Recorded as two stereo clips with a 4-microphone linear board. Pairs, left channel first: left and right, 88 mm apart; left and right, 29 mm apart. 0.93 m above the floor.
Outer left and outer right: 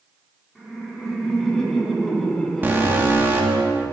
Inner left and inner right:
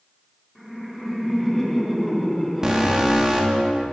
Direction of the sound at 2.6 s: 25° right (ahead or behind).